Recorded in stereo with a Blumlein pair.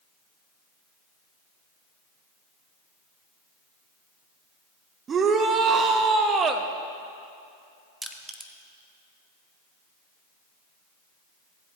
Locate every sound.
5.1 s a shout: 25° right, 0.8 m
8.0 s crushing: 5° right, 0.7 m